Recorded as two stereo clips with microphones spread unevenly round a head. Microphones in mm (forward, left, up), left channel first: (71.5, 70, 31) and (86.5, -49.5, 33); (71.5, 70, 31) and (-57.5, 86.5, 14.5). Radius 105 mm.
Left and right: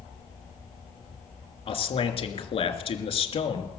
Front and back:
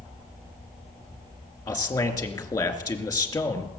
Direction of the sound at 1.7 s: 55° left.